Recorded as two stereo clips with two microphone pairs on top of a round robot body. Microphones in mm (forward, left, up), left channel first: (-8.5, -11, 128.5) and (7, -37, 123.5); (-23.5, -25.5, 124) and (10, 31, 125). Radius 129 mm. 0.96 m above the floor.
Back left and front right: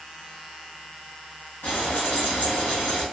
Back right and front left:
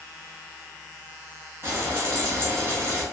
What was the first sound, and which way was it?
Frying, 110° left.